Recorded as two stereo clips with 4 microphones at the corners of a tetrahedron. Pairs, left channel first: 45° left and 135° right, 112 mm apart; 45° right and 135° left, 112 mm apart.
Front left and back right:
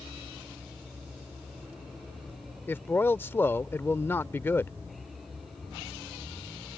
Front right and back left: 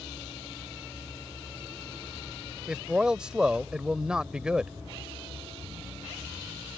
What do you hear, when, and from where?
2.7 s a man speaking: 65° left